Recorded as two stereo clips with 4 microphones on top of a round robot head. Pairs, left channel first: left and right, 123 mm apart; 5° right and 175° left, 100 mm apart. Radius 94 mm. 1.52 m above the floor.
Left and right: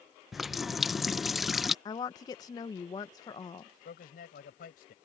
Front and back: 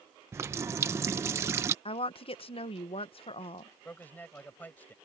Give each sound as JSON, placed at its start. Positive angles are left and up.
{"t": 0.3, "sound": "a running tap", "azimuth_deg": -175}
{"t": 1.9, "sound": "a woman speaking", "azimuth_deg": 25}
{"t": 3.9, "sound": "a man speaking", "azimuth_deg": 65}